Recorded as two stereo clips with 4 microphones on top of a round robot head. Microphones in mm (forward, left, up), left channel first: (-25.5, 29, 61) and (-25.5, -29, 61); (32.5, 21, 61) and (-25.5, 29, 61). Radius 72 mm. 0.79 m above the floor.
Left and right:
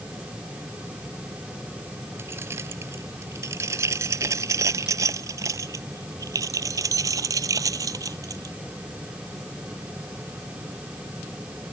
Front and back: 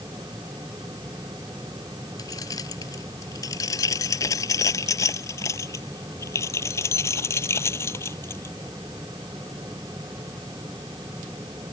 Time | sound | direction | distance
2.2 | keys jangling | 35° right | ?